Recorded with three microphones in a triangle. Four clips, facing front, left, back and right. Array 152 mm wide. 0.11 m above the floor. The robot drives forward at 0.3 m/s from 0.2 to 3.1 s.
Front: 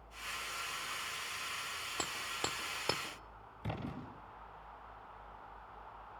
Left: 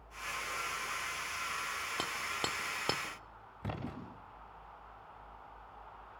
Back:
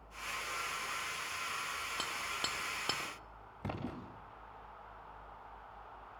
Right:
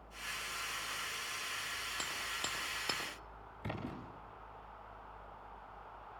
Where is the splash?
150° left, 8.5 m.